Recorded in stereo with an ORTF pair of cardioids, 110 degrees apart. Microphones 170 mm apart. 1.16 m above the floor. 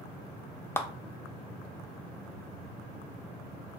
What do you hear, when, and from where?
0.8 s a clap: 15° left, 0.5 m